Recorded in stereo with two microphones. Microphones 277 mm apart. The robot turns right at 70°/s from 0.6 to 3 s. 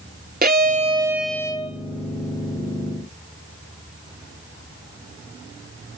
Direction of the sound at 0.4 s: 45° right.